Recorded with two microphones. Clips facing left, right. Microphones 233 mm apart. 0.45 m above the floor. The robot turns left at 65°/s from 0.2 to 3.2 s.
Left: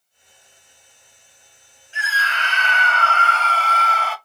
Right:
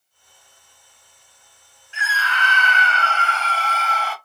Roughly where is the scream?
Behind left.